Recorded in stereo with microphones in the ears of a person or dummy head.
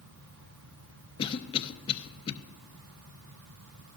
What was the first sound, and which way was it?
A cough, 25° left (ahead or behind).